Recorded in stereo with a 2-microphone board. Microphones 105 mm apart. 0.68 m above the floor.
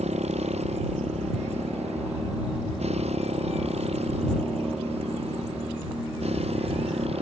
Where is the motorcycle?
80° right; by 7.2 s 70° right (ahead or behind).